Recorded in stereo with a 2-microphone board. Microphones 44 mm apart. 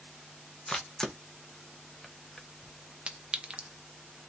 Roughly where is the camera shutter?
Centre.